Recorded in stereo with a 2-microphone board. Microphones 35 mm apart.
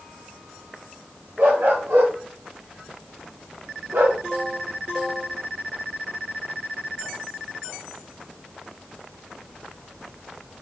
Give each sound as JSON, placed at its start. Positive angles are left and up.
{"t": 1.4, "sound": "a dog barking", "side_deg": -65, "distance_m": 8.0}